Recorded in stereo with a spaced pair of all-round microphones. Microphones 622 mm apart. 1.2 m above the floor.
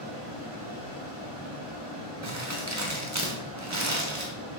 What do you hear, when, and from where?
0.0 s a fan: 40° left (ahead or behind), 2 m
2.2 s crumpling: 25° right (ahead or behind), 0.8 m